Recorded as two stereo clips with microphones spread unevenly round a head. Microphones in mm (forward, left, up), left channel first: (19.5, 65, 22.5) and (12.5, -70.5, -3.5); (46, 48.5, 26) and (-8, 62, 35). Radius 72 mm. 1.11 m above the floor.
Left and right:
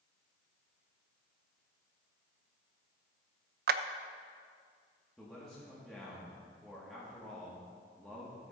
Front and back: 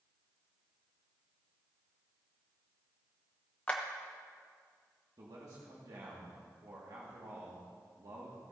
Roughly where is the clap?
Right.